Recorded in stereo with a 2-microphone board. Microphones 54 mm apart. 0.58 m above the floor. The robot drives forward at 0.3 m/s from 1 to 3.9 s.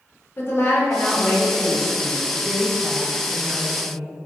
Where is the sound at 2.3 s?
20° right (ahead or behind), 1.4 m.